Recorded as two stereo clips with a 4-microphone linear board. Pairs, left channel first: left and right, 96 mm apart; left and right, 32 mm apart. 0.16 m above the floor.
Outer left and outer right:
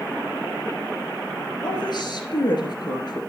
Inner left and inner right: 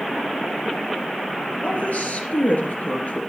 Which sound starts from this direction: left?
A woman speaking, at 1.6 s.